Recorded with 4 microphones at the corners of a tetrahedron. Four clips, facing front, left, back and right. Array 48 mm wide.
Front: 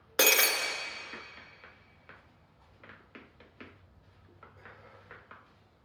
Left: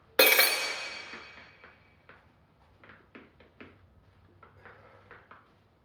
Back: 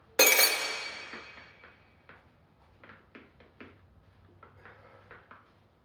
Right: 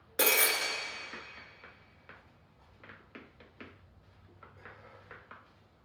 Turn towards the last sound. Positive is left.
turn(degrees=95)